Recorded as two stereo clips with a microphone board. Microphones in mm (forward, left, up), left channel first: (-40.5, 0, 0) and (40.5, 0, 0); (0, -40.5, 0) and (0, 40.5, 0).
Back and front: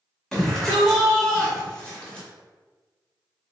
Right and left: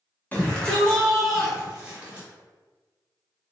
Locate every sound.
0.3 s a shout: 100° right, 1.5 m; by 2.3 s 120° left, 1.5 m